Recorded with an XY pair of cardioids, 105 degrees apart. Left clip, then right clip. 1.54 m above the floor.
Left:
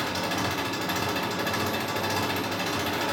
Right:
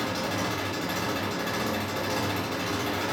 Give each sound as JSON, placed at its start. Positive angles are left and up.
{"t": 0.0, "sound": "an engine running", "azimuth_deg": 40, "distance_m": 0.8}